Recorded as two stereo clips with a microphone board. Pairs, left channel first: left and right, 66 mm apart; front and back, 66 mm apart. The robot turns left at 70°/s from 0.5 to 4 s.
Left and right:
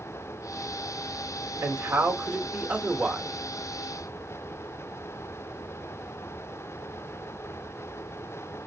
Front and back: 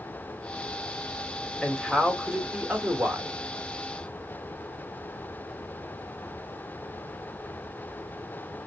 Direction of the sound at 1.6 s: 65° right.